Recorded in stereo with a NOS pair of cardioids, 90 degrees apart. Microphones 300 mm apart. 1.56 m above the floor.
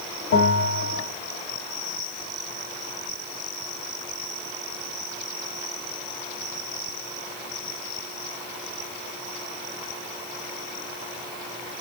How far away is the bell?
About 2.5 m.